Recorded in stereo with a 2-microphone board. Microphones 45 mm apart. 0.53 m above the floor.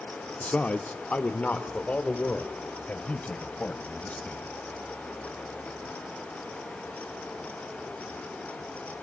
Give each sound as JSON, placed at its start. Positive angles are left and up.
{"t": 0.4, "sound": "a man speaking", "side_deg": 35, "distance_m": 1.0}